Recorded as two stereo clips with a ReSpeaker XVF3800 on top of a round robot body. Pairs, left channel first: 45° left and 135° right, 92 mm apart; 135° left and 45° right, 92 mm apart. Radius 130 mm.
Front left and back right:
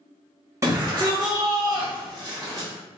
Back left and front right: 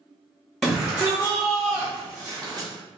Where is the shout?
135° right, 1.2 m; by 2.7 s 80° right, 2.0 m.